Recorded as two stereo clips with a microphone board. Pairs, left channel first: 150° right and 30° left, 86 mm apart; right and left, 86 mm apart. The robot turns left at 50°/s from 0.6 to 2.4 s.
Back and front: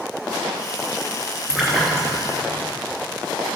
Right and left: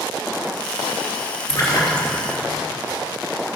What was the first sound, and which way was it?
A splash, 45° right.